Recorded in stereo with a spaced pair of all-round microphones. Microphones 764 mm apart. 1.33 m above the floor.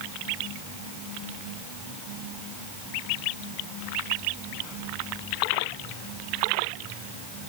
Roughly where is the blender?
I don't hear a blender.